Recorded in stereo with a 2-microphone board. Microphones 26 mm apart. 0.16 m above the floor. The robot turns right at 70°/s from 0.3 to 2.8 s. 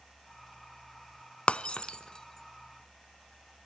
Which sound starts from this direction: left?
Breaking glass, at 1.5 s.